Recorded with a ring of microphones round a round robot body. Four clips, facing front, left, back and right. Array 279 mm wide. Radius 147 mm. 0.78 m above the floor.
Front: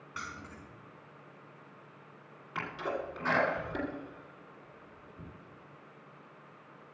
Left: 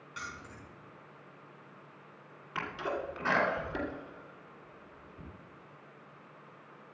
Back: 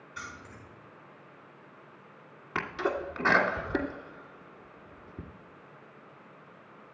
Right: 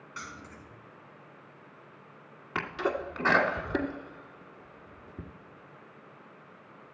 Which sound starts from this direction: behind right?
A sneeze, at 2.5 s.